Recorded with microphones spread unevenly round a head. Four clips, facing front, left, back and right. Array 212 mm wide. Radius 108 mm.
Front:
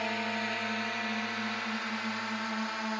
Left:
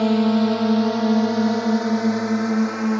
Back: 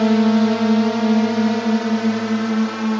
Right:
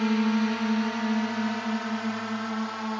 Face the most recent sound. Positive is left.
turn(degrees=140)